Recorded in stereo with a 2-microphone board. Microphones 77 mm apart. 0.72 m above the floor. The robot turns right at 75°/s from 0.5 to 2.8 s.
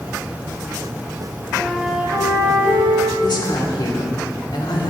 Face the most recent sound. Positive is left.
turn(degrees=70)  # may be behind; listen again after turning